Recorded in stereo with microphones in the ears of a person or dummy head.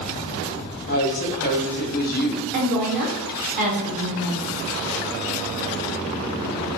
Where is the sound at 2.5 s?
40° right (ahead or behind), 0.7 m.